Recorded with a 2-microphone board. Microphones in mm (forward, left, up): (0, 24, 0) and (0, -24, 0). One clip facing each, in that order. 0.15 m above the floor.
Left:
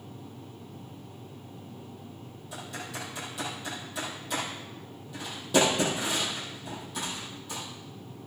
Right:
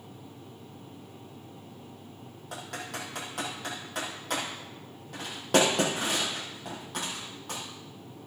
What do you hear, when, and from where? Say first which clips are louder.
2.5 s typing on a keyboard: right 1 dB; 60° right (ahead or behind), 4.5 m